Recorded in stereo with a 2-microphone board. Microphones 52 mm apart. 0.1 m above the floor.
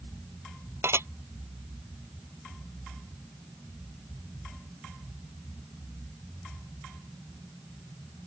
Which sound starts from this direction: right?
Dishes clattering, at 0.8 s.